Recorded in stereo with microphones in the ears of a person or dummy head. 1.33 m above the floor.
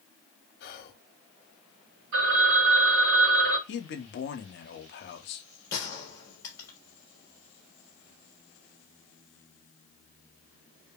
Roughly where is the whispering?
Left.